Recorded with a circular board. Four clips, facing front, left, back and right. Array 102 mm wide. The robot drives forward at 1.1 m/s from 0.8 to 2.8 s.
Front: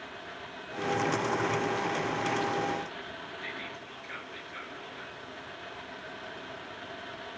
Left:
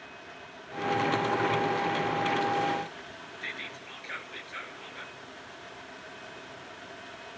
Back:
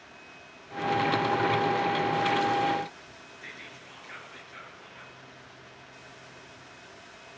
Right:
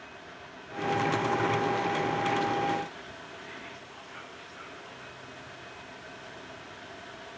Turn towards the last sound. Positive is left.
turn(degrees=75)